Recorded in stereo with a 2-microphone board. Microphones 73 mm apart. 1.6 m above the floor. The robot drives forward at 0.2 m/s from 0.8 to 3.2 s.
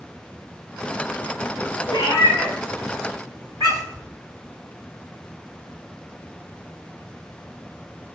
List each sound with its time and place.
1.9 s a cat meowing: 60° left (ahead or behind), 1.5 m